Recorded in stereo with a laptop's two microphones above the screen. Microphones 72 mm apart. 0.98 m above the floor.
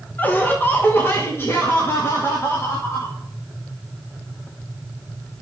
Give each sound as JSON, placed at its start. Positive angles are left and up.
{"t": 0.2, "sound": "laughter", "side_deg": 25, "distance_m": 1.0}